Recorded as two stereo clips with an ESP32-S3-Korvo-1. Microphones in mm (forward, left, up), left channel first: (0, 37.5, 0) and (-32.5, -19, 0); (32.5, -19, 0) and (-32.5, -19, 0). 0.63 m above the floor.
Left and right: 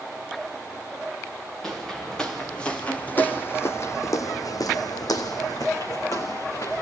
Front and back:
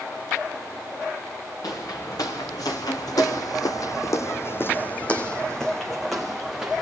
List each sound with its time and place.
1.6 s footsteps: 25° right, 3 m; by 6.8 s 100° left, 3 m